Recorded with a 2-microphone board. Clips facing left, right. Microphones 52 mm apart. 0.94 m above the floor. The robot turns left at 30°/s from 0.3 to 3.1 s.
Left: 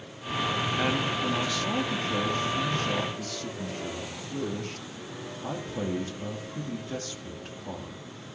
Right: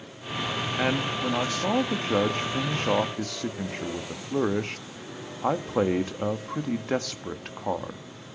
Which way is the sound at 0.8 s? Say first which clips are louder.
Right 4 dB; 15° right.